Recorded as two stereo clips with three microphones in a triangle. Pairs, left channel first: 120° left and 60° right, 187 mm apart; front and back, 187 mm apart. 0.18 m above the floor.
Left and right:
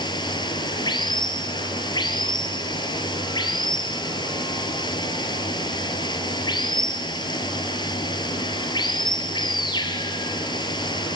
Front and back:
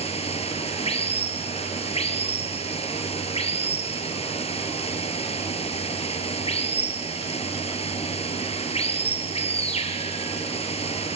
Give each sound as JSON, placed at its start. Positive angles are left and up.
{"t": 0.0, "sound": "running water", "azimuth_deg": 55, "distance_m": 1.6}